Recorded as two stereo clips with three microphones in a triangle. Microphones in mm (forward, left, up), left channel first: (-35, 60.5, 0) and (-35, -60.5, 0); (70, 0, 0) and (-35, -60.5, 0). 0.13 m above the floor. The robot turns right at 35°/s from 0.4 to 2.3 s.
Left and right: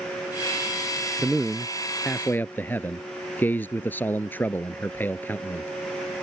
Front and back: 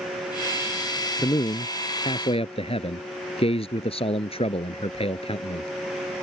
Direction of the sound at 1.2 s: 20° right.